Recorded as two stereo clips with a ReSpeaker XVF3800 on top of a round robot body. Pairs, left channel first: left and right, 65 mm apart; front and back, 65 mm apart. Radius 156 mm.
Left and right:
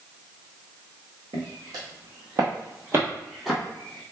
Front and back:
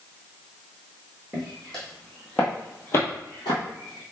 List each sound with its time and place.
1.3 s footsteps: 90° right, 1.9 m; by 4.0 s 30° left, 1.1 m